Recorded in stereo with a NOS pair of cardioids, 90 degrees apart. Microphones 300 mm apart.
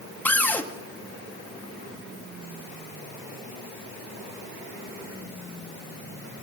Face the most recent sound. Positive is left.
turn(degrees=5)